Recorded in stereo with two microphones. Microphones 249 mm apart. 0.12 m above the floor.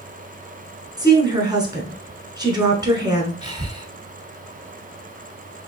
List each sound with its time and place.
1.0 s a woman speaking: 15° right (ahead or behind), 1.1 m
3.4 s breathing: 15° right (ahead or behind), 0.7 m